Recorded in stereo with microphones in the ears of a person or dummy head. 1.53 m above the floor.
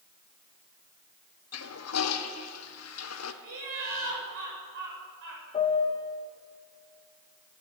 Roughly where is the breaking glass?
I don't hear breaking glass.